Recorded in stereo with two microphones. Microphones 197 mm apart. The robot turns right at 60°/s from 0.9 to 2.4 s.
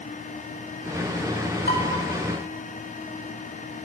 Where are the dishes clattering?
55° left (ahead or behind), 3 m; by 1.8 s 45° left (ahead or behind), 3 m.